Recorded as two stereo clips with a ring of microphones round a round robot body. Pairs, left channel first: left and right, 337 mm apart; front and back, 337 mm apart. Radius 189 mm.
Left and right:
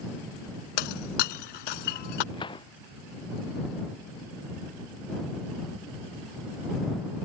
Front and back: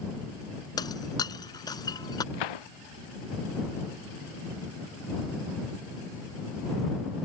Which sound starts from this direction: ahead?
A gunshot, at 2.3 s.